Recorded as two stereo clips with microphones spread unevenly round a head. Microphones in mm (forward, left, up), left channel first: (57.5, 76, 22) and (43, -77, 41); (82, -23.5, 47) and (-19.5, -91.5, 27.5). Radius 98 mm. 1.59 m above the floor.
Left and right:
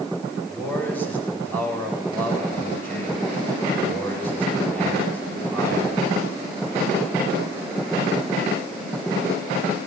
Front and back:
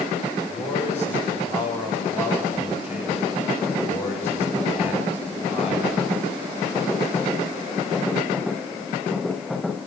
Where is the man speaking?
5° left, 9 m.